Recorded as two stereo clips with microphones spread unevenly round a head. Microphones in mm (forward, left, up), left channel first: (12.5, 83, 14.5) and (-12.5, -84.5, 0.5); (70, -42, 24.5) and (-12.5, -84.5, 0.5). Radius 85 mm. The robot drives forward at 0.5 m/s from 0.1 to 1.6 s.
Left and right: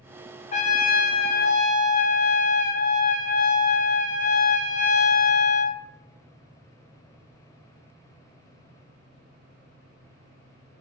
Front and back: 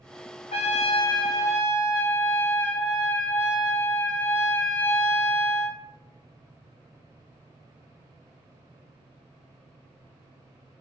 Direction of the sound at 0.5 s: 35° left.